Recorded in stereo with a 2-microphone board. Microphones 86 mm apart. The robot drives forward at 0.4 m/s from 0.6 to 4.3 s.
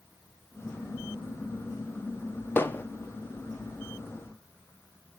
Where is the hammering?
25° left (ahead or behind), 1.6 m.